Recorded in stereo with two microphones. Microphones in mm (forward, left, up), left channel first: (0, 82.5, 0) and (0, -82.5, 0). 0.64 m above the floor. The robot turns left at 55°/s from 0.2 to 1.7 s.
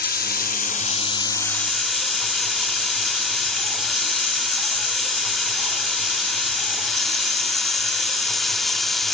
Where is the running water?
85° left, 0.7 m; by 9.1 s straight ahead, 0.7 m.